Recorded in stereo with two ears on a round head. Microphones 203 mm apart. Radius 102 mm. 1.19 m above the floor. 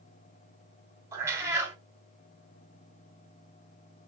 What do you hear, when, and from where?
1.1 s a cat meowing: 15° right (ahead or behind), 1.1 m